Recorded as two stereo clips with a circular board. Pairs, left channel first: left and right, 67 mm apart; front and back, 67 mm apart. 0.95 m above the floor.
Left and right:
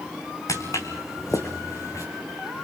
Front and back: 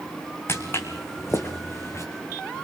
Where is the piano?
No piano in this recording.